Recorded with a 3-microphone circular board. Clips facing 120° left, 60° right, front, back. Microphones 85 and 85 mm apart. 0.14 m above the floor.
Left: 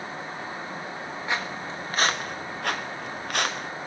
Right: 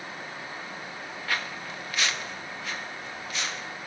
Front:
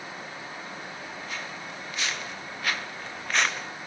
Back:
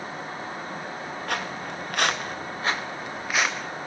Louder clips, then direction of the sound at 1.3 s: Left 2 dB, back 10 dB; 175° right.